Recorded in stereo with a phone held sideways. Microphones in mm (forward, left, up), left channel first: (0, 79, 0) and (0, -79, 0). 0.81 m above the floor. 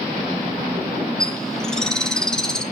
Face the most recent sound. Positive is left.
turn(degrees=5)  # may be behind; listen again after turning